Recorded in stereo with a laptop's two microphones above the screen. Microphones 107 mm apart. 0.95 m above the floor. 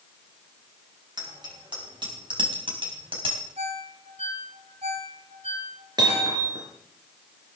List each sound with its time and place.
1.2 s a bicycle bell: 45° right (ahead or behind), 5.5 m; by 3.4 s 55° right (ahead or behind), 4.5 m
3.6 s a ringtone: 70° right (ahead or behind), 3 m
6.0 s hammering: 40° right (ahead or behind), 4.5 m